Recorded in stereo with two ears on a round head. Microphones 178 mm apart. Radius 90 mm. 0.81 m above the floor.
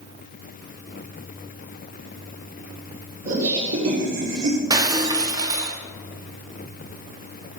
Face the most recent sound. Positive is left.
turn(degrees=-20)  # may be behind; listen again after turning